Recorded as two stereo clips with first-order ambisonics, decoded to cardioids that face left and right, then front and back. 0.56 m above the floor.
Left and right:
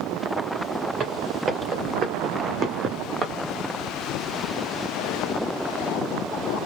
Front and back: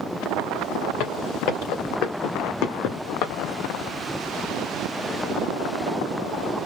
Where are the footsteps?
25° right, 3 m.